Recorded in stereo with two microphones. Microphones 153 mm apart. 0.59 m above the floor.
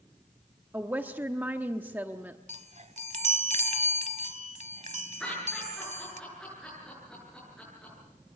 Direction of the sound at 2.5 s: 55° right (ahead or behind).